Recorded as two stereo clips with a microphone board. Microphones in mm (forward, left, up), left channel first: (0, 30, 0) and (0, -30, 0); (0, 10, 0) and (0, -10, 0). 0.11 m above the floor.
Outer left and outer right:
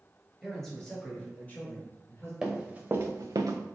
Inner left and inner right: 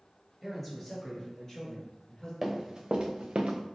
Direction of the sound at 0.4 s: Centre (ahead or behind).